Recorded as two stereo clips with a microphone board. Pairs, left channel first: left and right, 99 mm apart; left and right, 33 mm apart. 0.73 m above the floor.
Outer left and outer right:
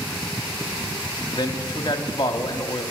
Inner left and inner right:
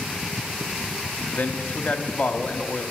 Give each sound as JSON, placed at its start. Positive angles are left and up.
{"t": 1.4, "sound": "a man speaking", "side_deg": 45, "distance_m": 0.9}